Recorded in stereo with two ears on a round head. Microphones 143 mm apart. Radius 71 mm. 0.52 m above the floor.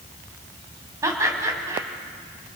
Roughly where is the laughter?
Centre.